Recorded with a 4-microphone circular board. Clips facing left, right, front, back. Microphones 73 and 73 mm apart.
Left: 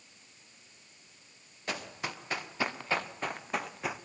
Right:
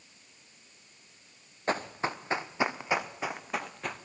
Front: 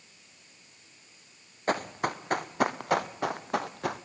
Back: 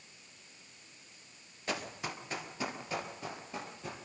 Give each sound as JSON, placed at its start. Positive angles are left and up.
{"t": 1.7, "sound": "running footsteps", "azimuth_deg": -40, "distance_m": 1.9}